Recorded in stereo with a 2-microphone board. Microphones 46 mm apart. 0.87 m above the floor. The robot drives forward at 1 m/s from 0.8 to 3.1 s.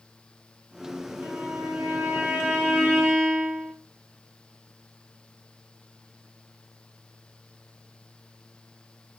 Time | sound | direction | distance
1.2 | a violin | 35° right (ahead or behind) | 2 m